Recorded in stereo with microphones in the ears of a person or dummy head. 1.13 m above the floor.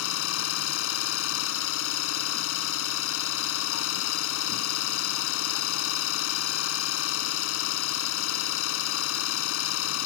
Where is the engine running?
80° left.